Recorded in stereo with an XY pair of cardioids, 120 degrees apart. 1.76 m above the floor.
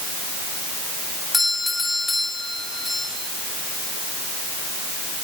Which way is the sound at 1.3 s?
15° left.